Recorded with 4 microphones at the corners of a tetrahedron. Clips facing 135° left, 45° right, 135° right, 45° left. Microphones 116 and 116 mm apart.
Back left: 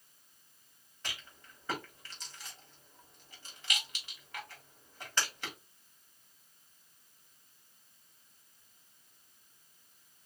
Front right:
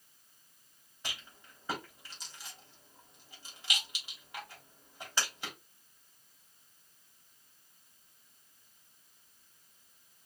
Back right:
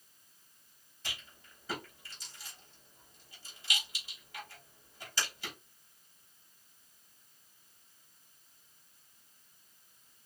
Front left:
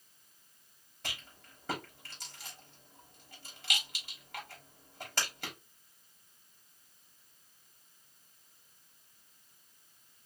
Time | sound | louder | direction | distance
1.0 | a rattle | even, front left 2 dB | 35° left | 3 m